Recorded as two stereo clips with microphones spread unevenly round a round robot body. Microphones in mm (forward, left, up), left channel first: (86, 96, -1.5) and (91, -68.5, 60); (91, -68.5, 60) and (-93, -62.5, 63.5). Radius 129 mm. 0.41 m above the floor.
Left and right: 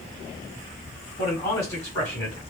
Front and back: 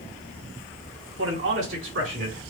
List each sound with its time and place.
1.2 s a man speaking: 160° left, 2.5 m; by 2.4 s 165° left, 3.5 m